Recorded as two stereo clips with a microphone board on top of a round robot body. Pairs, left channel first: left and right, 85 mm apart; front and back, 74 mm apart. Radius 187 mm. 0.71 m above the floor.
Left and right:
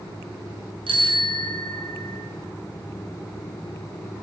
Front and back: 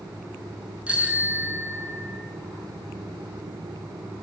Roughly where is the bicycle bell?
Right.